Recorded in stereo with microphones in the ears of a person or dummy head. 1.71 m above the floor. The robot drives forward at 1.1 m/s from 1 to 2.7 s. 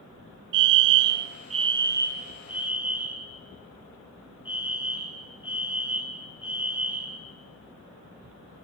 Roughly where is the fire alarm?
Right.